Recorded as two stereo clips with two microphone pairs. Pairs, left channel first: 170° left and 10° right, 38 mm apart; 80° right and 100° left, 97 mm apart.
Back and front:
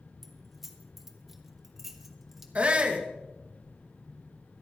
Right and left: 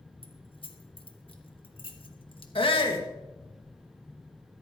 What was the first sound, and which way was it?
Keys jangling, 95° right.